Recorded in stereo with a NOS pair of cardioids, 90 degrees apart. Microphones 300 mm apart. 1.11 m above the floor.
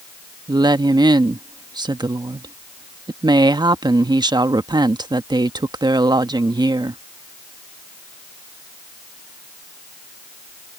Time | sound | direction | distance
0.5 | a woman speaking | 15° right | ?